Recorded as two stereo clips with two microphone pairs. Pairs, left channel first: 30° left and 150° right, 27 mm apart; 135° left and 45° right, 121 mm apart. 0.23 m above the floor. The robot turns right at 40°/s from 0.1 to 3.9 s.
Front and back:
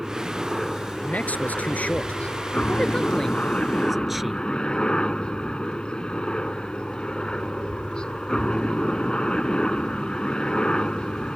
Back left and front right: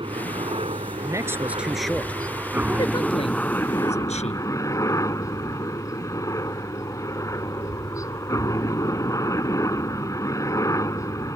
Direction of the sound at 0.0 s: 75° right.